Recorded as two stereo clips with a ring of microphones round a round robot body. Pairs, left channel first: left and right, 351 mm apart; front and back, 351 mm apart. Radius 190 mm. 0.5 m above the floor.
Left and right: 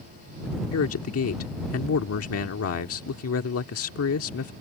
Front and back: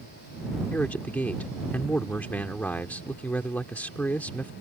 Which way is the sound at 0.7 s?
85° left.